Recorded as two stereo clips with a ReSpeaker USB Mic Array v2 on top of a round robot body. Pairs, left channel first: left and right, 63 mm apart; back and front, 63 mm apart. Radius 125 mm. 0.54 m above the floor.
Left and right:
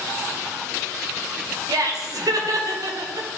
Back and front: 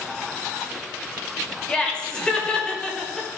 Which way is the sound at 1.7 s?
105° right.